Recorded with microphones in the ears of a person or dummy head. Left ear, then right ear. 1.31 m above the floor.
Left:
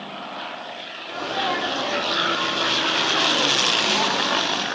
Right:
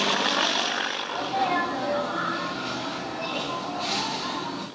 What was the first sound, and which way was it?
A sneeze, 5° left (ahead or behind).